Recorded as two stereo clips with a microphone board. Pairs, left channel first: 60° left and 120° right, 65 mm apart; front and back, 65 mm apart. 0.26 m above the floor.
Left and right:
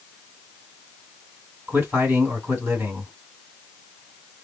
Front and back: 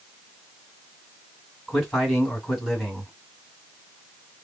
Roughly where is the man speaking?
Right.